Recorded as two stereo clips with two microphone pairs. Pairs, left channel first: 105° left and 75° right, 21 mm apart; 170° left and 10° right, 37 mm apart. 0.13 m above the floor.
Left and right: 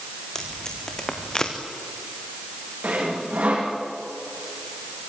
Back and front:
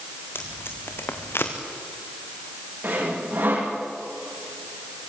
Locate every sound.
0.3 s tape being pulled: 170° left, 3 m
2.8 s sawing: 50° right, 6.5 m